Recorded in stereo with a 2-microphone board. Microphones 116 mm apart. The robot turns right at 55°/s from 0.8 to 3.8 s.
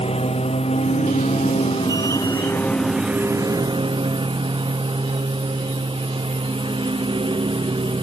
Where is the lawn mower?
65° left; by 8.0 s 130° right.